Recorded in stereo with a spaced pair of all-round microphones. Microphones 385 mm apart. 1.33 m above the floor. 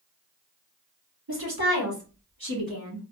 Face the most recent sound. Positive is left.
turn(degrees=-65)  # may be behind; listen again after turning